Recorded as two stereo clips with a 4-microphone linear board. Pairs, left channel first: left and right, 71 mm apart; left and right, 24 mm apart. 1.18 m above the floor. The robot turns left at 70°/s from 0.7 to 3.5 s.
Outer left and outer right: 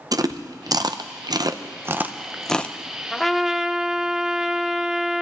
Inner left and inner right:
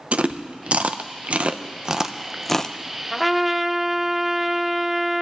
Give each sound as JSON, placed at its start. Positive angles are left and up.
{"t": 0.1, "sound": "chewing", "side_deg": -60, "distance_m": 0.6}
{"t": 3.1, "sound": "a trumpet", "side_deg": 10, "distance_m": 0.8}